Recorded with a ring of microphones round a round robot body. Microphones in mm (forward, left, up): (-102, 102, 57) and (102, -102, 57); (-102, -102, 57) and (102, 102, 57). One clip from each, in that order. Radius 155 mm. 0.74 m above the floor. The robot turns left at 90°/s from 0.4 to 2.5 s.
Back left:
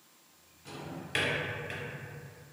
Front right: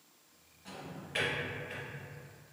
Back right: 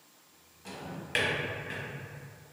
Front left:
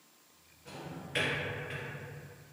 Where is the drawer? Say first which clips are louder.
Back left 3 dB, back right 3 dB; 115° right, 1.1 m; by 1.9 s 135° left, 1.1 m.